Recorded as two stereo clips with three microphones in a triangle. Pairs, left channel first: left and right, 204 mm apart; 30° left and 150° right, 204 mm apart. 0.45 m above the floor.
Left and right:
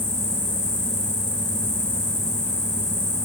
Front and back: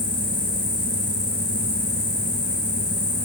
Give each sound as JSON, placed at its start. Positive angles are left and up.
{"t": 0.0, "sound": "an insect", "azimuth_deg": 40, "distance_m": 1.3}